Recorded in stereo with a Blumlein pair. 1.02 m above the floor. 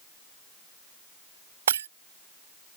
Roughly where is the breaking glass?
Ahead right.